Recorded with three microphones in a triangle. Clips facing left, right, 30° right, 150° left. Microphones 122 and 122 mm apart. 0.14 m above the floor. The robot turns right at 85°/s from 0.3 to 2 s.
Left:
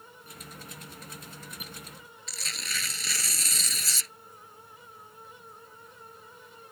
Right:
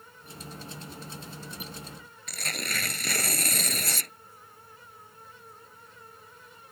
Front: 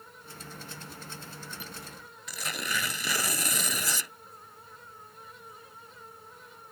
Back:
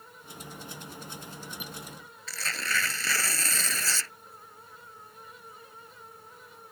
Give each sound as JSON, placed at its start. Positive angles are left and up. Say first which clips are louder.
{"t": 2.3, "sound": "tearing paper", "louder": "right 6 dB, back 1 dB", "azimuth_deg": -100}